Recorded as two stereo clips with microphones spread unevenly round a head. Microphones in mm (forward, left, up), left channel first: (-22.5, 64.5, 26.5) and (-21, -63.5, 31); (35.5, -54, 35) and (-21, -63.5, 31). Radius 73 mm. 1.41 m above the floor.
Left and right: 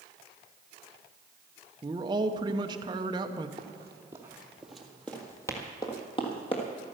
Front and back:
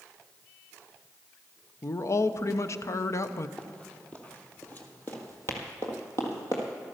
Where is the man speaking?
25° right, 0.8 m.